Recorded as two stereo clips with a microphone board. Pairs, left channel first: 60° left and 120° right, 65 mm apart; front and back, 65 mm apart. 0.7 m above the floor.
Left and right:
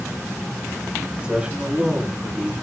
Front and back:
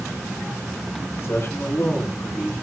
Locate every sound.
1.2 s a man speaking: 50° right, 5.5 m; by 2.5 s 65° right, 5.5 m